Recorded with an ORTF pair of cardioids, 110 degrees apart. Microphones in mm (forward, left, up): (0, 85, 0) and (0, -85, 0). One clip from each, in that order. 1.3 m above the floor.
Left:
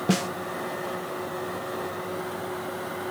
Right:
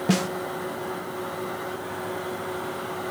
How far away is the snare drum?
About 0.8 m.